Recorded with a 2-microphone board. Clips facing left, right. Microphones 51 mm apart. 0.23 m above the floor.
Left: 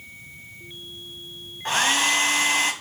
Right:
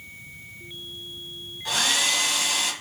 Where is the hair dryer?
40° left (ahead or behind), 1.9 m.